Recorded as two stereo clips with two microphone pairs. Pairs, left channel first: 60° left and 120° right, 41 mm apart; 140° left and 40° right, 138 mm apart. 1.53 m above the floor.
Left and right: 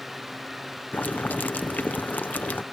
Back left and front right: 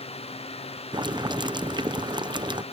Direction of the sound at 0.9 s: 15° left.